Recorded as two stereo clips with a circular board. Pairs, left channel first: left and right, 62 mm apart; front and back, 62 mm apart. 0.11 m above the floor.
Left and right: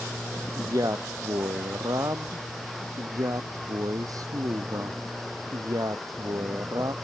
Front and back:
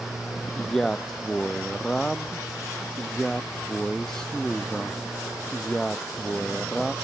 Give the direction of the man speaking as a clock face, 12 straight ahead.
3 o'clock.